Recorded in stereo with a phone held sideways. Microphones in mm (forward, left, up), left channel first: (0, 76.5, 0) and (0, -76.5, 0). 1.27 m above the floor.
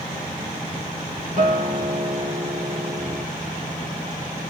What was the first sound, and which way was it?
A guitar, 60° right (ahead or behind).